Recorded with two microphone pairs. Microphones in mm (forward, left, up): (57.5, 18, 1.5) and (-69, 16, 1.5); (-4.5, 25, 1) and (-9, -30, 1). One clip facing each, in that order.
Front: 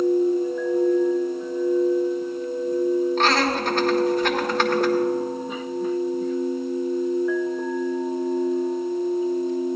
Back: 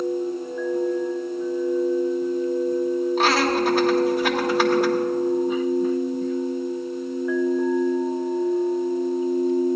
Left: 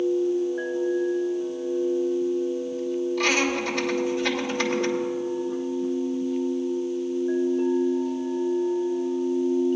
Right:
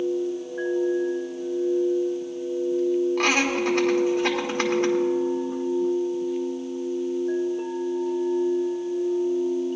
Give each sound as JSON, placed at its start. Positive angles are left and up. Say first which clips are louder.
{"t": 3.2, "sound": "laughter", "louder": "back 1 dB, right 1 dB", "azimuth_deg": -100, "distance_m": 1.7}